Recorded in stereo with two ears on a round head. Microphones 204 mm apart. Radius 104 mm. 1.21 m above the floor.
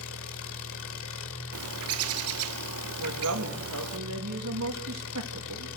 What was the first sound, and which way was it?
An engine running, 60° left (ahead or behind).